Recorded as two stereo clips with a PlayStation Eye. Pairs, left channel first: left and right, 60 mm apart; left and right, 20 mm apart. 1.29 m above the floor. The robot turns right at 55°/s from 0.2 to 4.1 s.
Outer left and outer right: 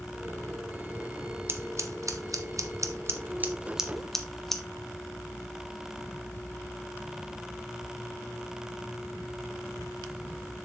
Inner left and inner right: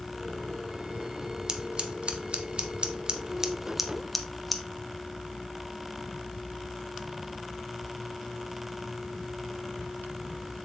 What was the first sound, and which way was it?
Scissors, 35° right (ahead or behind).